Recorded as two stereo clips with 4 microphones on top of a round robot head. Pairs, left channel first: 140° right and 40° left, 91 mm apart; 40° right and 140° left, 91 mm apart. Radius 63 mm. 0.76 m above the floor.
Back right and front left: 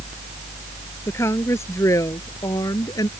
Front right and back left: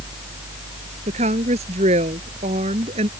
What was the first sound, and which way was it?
A woman speaking, 155° left.